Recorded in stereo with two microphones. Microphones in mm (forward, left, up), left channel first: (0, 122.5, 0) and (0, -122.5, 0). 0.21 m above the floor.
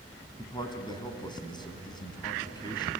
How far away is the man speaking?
About 1.8 m.